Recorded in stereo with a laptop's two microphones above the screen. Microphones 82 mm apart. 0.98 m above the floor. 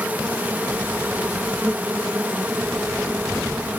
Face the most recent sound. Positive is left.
turn(degrees=-20)  # may be behind; listen again after turning